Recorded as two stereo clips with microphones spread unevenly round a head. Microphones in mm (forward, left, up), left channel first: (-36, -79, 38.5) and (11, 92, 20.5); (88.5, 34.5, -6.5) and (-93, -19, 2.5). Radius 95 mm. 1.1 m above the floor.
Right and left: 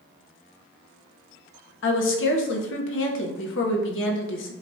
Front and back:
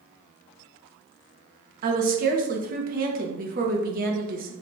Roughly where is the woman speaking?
Behind right.